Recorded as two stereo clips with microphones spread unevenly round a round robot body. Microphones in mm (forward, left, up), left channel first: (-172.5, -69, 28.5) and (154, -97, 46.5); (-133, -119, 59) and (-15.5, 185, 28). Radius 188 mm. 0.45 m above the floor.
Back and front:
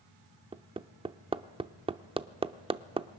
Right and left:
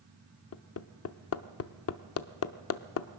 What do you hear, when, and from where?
0.5 s hammering: 80° right, 0.6 m